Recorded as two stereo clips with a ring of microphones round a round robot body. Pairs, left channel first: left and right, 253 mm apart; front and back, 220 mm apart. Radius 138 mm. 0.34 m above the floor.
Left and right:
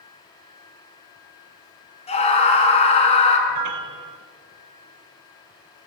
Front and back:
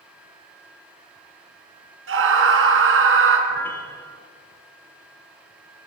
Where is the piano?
80° right, 1.0 m.